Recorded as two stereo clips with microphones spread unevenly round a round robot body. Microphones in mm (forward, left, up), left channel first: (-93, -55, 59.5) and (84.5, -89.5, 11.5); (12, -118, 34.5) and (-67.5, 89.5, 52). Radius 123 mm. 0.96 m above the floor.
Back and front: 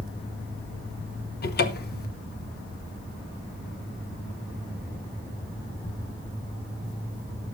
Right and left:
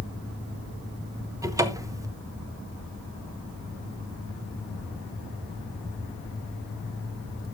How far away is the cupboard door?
About 1.1 m.